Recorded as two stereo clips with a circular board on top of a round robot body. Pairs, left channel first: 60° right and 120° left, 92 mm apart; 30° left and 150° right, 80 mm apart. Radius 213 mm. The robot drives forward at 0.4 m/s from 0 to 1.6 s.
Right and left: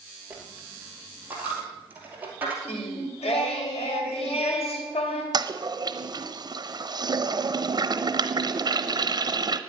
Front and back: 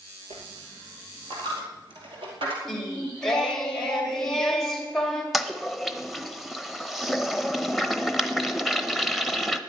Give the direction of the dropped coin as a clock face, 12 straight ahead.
5 o'clock.